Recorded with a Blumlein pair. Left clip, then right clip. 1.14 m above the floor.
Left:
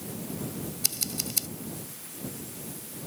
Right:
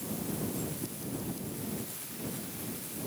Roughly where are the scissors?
Ahead left.